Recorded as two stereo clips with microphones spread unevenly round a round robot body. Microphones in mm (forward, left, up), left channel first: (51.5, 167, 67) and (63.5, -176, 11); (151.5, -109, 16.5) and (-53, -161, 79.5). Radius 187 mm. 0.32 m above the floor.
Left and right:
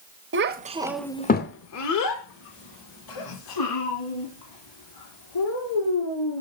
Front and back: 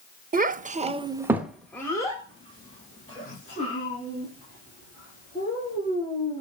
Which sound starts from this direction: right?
A child speaking, at 0.3 s.